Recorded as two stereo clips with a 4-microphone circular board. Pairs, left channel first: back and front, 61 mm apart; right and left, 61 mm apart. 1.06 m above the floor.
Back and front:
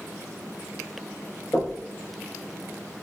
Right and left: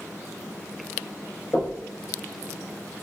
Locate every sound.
1.5 s knocking: 140° right, 4 m